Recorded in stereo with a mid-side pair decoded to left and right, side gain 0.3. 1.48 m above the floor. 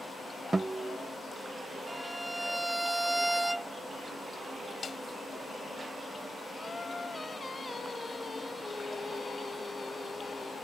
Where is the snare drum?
50° left.